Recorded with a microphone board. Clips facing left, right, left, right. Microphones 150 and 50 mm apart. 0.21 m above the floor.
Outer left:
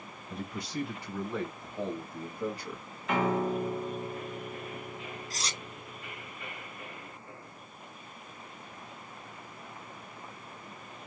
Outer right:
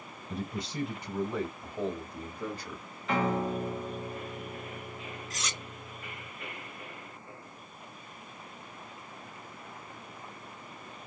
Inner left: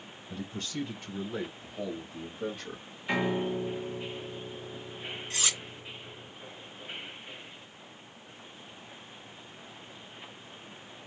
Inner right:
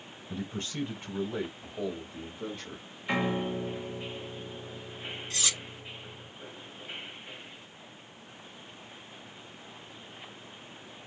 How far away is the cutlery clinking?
About 0.8 m.